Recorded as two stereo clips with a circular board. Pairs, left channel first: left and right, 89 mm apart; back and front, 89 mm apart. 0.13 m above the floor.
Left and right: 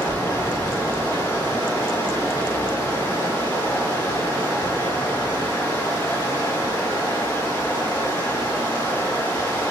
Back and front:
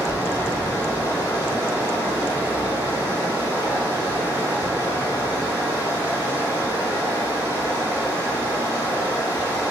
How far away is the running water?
About 1.6 m.